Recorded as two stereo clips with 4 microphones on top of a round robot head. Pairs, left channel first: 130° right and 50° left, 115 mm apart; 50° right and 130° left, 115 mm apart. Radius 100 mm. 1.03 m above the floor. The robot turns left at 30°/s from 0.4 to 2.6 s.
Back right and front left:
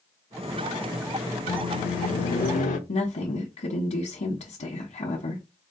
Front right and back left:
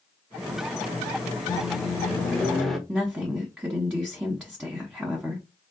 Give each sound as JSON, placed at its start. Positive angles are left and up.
{"t": 1.5, "sound": "a microwave", "azimuth_deg": -105, "distance_m": 0.6}
{"t": 2.9, "sound": "a woman speaking", "azimuth_deg": -150, "distance_m": 1.1}